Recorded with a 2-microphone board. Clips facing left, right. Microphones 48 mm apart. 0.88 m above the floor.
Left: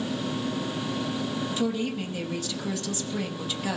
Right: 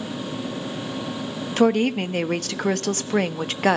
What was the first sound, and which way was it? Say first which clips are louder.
A woman speaking: right 12 dB; 60° right (ahead or behind).